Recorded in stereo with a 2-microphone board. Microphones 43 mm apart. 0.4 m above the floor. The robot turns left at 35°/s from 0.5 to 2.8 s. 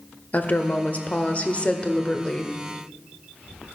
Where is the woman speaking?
90° left, 1.0 m; by 2.5 s 20° left, 1.0 m.